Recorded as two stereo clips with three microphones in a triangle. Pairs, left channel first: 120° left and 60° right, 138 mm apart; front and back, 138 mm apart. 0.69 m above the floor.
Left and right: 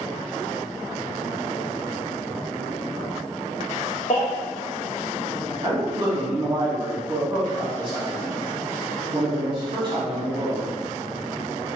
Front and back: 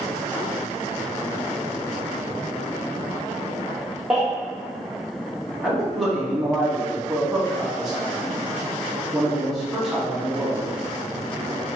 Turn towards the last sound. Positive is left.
turn(degrees=-90)